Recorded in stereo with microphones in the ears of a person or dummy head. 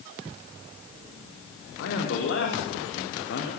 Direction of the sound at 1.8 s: 80° left.